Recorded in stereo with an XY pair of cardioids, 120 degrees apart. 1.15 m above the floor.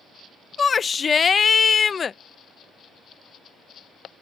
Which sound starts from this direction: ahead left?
A shout, at 0.6 s.